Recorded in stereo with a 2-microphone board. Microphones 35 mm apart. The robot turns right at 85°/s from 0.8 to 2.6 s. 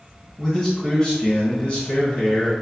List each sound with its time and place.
0.4 s a man speaking: 40° left, 1.0 m; by 2.5 s 175° right, 1.0 m